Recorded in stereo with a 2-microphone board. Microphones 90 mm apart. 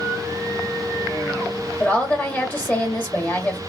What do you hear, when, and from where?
1.8 s a woman speaking: 20° left (ahead or behind), 1.2 m